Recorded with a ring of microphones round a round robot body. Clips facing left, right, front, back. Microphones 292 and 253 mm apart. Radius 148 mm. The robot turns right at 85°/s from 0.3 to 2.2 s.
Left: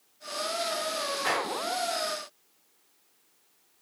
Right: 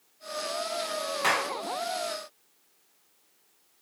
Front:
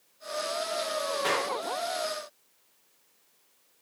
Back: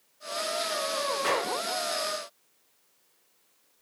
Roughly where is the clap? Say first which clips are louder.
Left 2 dB, back 2 dB; right.